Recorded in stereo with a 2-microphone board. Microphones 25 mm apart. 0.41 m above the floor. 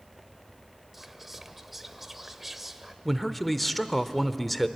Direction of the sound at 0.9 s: 10° right (ahead or behind).